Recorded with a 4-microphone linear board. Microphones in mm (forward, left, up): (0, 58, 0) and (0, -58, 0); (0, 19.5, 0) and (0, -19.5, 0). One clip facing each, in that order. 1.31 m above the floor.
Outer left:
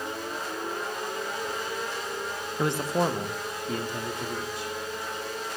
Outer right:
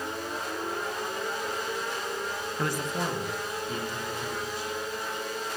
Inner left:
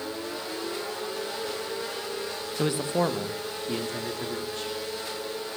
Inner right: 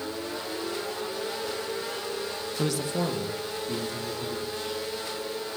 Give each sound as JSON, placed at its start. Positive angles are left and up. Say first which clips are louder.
{"t": 2.6, "sound": "a man speaking", "louder": "outer left 6 dB, inner left 3 dB", "side_deg": 15, "distance_m": 0.8}